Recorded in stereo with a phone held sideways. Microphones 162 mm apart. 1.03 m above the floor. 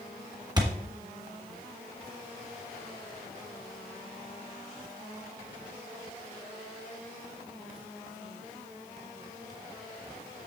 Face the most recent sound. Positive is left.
turn(degrees=-25)  # may be behind; listen again after turning